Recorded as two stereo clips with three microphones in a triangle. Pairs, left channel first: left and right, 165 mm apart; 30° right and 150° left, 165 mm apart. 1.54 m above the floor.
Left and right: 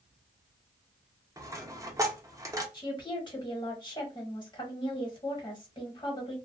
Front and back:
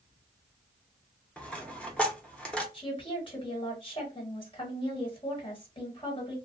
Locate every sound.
1.4 s a dropped coin: 100° right, 0.8 m
2.7 s a woman speaking: 25° left, 1.4 m